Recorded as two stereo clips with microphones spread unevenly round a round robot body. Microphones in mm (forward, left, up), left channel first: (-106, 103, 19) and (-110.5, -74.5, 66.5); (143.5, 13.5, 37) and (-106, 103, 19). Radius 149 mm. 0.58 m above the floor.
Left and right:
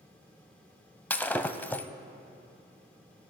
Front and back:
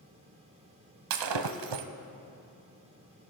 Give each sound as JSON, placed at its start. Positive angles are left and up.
{"t": 1.1, "sound": "breaking glass", "azimuth_deg": 175, "distance_m": 0.9}